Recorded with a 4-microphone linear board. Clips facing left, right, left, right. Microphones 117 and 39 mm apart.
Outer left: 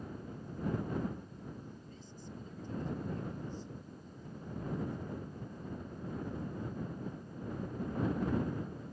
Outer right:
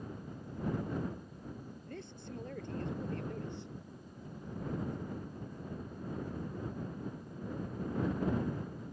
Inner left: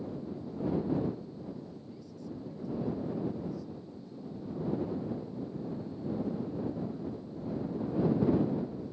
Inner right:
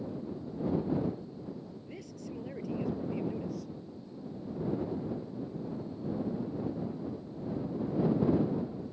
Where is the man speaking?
75° right (ahead or behind).